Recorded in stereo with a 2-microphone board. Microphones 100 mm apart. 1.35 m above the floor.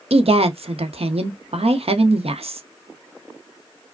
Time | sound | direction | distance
0.1 | a woman speaking | 85° right | 0.9 m